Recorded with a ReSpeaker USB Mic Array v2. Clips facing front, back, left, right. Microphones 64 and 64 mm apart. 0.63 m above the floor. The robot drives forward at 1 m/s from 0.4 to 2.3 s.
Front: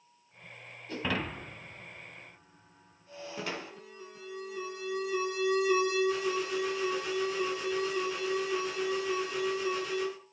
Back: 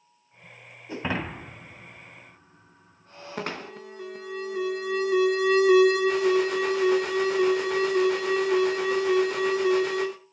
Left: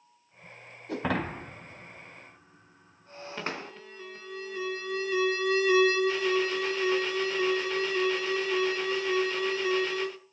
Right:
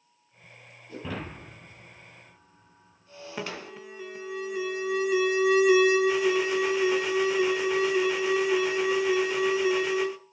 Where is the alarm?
165° right, 1.5 m.